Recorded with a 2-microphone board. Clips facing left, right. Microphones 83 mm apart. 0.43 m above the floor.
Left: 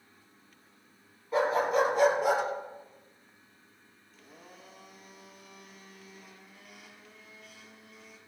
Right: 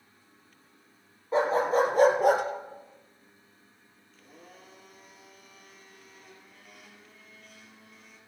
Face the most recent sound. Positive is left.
turn(degrees=0)  # may be behind; listen again after turning